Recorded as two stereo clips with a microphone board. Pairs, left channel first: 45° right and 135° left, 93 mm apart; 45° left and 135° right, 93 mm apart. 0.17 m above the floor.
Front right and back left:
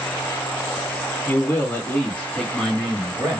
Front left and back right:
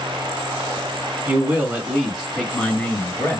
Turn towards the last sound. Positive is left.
turn(degrees=55)